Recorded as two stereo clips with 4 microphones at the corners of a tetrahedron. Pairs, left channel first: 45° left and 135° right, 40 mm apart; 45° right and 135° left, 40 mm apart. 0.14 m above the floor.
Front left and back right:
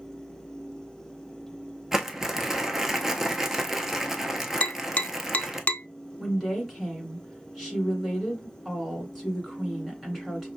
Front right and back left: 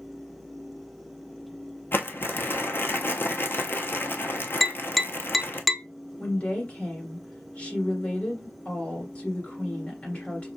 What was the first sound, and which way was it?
Crumpling, 55° right.